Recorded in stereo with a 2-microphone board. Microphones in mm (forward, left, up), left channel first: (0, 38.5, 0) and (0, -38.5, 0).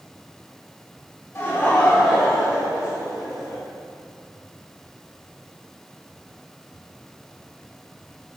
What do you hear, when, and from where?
1.4 s laughter: 35° left (ahead or behind), 1.4 m; by 3.6 s 35° right (ahead or behind), 2.5 m